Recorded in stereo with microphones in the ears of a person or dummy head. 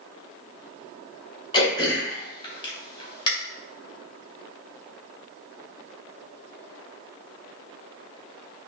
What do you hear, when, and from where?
1.5 s throat clearing: 25° left (ahead or behind), 2 m